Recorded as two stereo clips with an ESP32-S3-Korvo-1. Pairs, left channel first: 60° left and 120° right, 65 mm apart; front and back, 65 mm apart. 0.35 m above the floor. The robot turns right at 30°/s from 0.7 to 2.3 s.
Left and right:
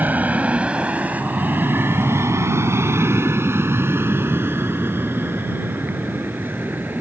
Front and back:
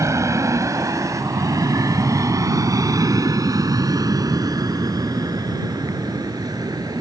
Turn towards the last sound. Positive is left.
turn(degrees=180)